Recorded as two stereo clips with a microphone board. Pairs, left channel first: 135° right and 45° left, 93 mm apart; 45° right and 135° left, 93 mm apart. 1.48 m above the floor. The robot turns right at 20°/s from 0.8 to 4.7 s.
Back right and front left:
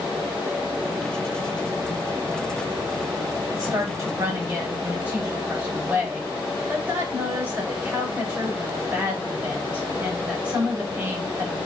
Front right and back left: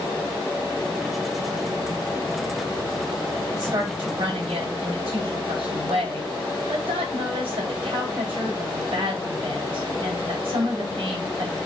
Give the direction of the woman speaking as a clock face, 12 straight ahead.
9 o'clock.